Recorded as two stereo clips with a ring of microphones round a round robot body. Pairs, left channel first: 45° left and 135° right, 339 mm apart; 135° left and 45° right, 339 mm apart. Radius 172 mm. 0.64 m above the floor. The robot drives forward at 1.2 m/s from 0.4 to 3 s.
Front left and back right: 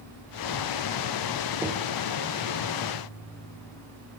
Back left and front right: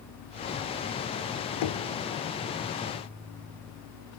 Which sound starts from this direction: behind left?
Knocking, at 1.6 s.